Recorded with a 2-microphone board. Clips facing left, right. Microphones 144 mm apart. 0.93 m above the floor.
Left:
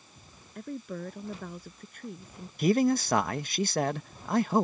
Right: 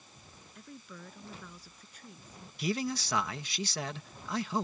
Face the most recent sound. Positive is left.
turn(degrees=50)  # may be behind; listen again after turning